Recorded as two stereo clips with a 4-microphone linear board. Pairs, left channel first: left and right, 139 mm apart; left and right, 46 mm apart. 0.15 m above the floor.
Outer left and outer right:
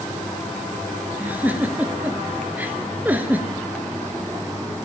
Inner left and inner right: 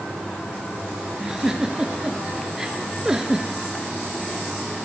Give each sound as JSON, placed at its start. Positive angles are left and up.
{"t": 1.2, "sound": "a giggle", "side_deg": -10, "distance_m": 0.9}